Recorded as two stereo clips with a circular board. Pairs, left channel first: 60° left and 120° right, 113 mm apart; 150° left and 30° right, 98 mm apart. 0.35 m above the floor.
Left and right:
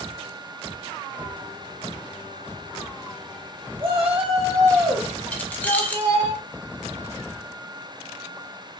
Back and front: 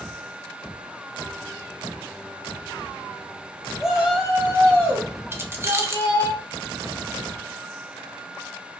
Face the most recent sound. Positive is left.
turn(degrees=0)